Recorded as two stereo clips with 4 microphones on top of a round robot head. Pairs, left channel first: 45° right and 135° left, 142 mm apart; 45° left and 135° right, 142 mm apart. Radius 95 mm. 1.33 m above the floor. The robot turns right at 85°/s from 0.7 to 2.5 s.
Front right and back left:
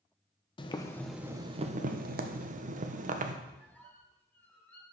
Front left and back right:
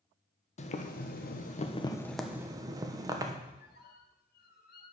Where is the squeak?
35° left, 1.6 m.